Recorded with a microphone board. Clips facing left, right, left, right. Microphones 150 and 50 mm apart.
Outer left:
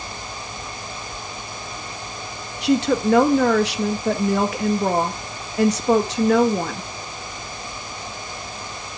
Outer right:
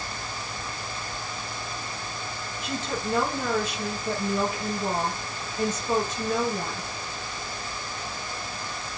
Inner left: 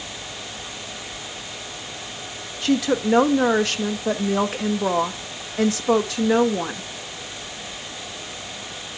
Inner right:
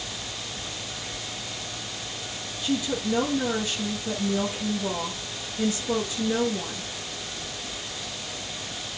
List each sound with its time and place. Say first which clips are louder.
2.6 s a woman speaking: outer left 14 dB, inner left 7 dB; 80° left, 1.8 m